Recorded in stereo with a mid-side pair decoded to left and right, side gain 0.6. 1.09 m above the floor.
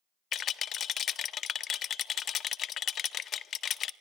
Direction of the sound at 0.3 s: 45° left.